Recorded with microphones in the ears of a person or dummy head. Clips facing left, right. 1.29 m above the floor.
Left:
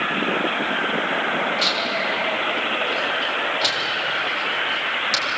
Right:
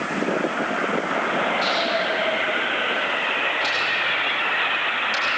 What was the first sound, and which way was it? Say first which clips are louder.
Tearing paper: right 2 dB; 80° left.